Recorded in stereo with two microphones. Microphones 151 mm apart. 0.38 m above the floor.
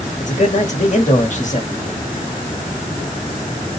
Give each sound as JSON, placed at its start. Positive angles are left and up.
{"t": 0.2, "sound": "a man speaking", "side_deg": 55, "distance_m": 1.4}